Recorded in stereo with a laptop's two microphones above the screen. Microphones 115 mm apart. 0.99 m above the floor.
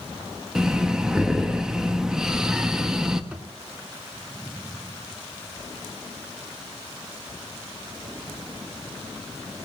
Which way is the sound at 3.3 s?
10° right (ahead or behind).